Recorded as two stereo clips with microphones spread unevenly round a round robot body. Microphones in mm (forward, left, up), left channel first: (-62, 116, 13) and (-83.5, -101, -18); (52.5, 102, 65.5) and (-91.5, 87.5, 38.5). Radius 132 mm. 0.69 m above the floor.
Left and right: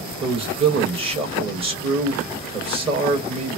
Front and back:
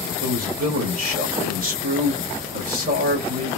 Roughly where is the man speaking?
Behind.